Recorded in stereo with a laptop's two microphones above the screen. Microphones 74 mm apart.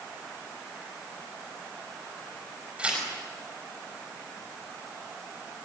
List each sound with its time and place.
2.8 s tearing paper: 15° right (ahead or behind), 5.5 m